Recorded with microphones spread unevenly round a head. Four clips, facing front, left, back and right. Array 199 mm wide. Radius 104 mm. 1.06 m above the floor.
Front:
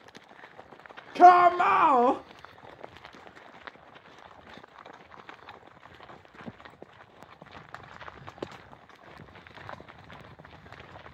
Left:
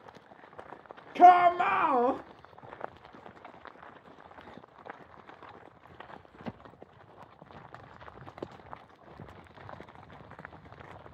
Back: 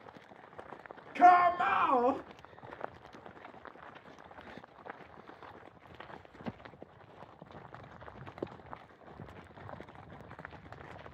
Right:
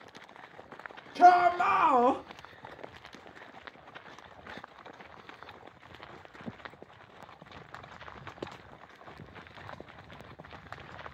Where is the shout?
30° left, 1.3 m; by 2.2 s 15° right, 0.9 m.